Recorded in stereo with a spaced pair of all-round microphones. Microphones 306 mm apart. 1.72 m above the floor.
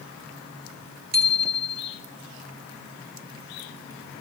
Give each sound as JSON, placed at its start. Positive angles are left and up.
{"t": 1.1, "sound": "a bicycle bell", "side_deg": -60, "distance_m": 4.0}